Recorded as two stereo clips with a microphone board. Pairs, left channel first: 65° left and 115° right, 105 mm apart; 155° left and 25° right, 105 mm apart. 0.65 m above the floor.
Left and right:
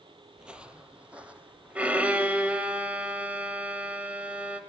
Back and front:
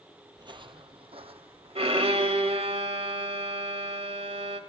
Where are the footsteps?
35° right, 0.8 m.